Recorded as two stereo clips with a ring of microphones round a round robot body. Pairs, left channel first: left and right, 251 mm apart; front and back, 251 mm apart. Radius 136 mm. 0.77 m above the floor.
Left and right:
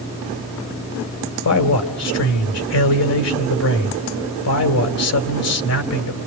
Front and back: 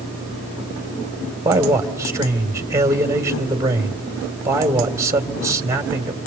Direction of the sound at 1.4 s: 105° left.